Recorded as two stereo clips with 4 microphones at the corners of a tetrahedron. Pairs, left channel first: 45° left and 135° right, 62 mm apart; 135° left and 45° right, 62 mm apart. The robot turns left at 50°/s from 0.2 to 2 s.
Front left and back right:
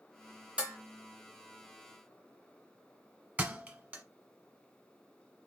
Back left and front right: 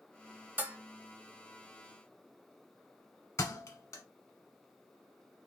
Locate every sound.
0.6 s dishes clattering: 80° right, 0.8 m; by 0.8 s 90° right, 0.8 m
3.4 s a thud: 165° left, 0.9 m